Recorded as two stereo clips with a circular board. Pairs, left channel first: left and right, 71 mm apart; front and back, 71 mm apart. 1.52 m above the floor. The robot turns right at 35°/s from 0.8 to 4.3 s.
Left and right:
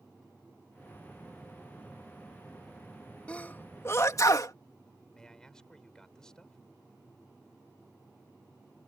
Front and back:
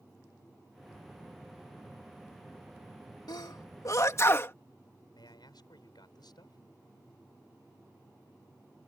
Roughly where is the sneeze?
Ahead.